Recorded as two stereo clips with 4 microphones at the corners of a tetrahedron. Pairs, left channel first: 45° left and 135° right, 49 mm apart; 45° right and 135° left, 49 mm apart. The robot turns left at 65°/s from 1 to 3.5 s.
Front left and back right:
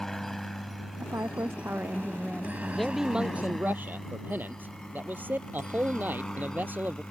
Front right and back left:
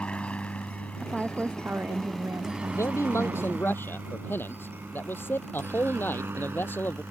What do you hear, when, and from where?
0.0 s a helicopter: 35° right; by 7.1 s 115° left
1.0 s a woman speaking: 130° right; by 3.7 s 65° left
2.7 s a man speaking: 35° right; by 7.0 s 85° right